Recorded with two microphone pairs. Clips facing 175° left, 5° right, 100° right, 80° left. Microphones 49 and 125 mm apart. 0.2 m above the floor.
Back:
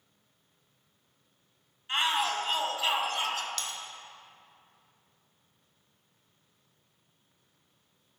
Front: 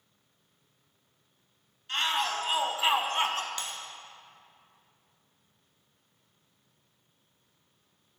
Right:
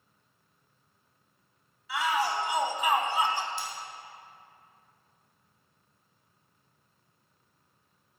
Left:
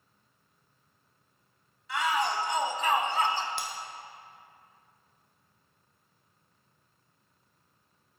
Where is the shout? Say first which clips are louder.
Back 1 dB, even; 175° right, 1.0 m; by 3.5 s 25° right, 1.4 m.